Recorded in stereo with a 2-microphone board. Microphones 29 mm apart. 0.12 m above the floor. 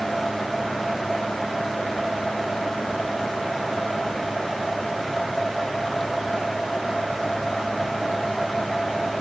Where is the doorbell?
No doorbell in this recording.